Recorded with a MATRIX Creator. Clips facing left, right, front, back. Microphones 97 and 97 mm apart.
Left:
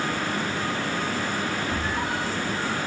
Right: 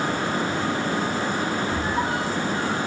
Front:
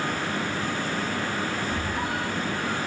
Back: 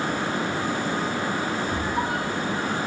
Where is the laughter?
I don't hear laughter.